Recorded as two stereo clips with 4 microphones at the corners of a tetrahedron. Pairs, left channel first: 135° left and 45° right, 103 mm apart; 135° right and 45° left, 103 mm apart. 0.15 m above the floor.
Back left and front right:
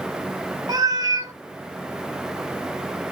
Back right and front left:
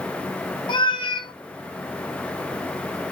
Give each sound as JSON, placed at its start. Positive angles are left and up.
{"t": 0.7, "sound": "a cat meowing", "azimuth_deg": -100, "distance_m": 0.6}